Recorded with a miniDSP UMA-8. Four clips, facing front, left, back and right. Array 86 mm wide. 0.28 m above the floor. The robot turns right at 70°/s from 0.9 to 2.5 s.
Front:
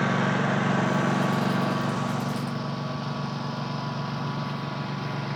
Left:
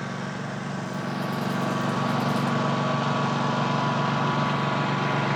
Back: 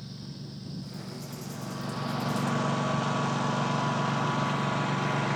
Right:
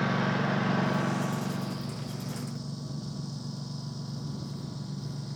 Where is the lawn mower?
10° right; by 5.4 s 105° left.